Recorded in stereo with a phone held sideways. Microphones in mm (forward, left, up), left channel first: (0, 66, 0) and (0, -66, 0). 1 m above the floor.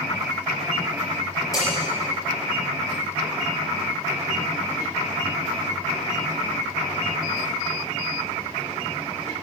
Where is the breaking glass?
25° left (ahead or behind), 4.5 m.